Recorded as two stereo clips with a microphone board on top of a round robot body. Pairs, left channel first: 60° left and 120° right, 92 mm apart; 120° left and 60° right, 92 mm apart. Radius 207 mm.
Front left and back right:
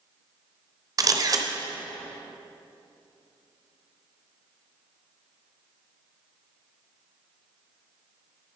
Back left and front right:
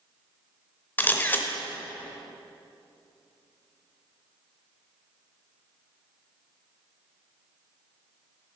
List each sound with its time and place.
1.0 s a camera shutter: 170° right, 0.9 m